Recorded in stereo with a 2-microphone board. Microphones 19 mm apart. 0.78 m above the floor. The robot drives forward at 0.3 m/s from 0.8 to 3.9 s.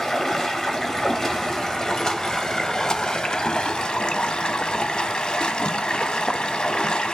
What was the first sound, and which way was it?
Running water, 25° left (ahead or behind).